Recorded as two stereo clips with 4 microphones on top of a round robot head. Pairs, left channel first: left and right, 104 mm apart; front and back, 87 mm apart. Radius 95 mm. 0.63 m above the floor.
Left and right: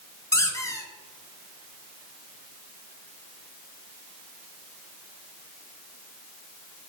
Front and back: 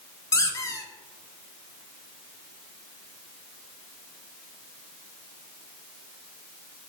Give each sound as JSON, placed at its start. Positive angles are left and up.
{"t": 0.3, "sound": "a squeak", "azimuth_deg": 40, "distance_m": 0.6}